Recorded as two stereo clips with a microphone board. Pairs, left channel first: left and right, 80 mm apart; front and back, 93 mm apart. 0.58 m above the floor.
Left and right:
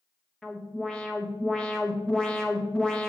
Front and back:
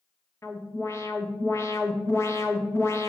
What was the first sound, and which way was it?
An alarm, 20° left.